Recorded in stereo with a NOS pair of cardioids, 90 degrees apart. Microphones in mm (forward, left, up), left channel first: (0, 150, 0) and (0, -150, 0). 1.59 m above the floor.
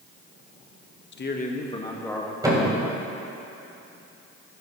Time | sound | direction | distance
1.1 | a man speaking | 40° left | 1.4 m
2.4 | a thud | 15° right | 4 m